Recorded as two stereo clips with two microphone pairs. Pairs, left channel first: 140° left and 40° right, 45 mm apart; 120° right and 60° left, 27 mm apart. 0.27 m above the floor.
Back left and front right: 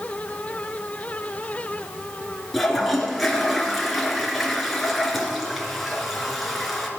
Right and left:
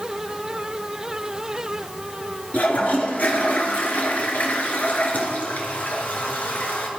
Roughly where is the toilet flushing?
Behind right.